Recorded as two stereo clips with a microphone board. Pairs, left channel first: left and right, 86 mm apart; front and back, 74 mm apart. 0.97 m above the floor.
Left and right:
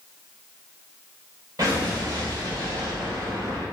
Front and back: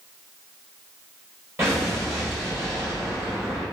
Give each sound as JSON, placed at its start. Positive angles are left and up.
{"t": 1.6, "sound": "an explosion", "azimuth_deg": -130, "distance_m": 1.1}